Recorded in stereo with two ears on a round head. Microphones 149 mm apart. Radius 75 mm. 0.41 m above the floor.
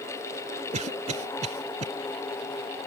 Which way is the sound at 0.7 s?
40° right (ahead or behind).